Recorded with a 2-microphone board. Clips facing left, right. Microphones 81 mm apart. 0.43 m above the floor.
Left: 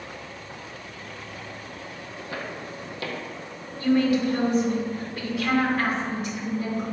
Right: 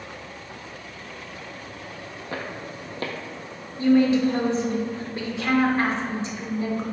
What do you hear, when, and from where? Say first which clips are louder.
2.3 s footsteps: right 1 dB; 40° right (ahead or behind), 0.7 m
3.8 s a woman speaking: right 3 dB; 25° right (ahead or behind), 0.8 m